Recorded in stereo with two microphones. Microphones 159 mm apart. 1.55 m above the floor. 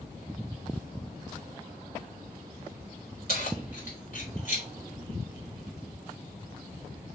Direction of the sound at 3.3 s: 65° left (ahead or behind).